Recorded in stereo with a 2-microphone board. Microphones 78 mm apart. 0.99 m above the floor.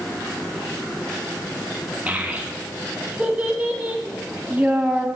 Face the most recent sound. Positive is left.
turn(degrees=-15)  # may be behind; listen again after turning